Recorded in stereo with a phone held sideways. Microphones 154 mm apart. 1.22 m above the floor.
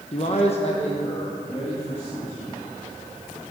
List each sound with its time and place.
0.1 s a man speaking: 45° left (ahead or behind), 0.8 m; by 2.5 s 40° left (ahead or behind), 3.5 m